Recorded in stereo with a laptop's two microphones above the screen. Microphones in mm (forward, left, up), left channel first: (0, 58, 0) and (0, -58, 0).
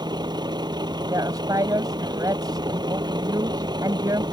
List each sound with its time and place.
0.0 s a vehicle: 40° right (ahead or behind)
1.1 s a woman speaking: 30° right (ahead or behind)